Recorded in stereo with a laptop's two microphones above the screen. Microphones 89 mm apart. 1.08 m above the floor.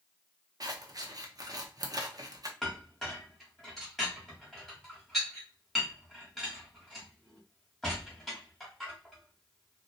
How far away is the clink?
About 1.0 m.